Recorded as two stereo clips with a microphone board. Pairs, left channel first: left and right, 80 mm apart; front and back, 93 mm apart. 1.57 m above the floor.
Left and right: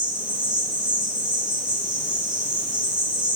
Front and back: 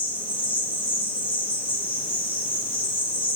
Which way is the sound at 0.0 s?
75° right.